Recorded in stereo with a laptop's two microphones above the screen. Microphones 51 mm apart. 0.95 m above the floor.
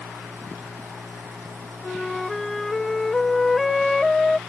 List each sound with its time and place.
0.0 s a machine running: 70° right (ahead or behind)
1.8 s a flute: 5° left (ahead or behind)